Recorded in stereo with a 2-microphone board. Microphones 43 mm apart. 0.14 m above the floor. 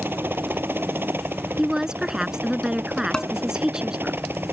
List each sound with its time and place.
0.0 s a helicopter: 60° right (ahead or behind)
1.6 s a woman speaking: 15° right (ahead or behind)
3.1 s dishes clattering: 20° left (ahead or behind)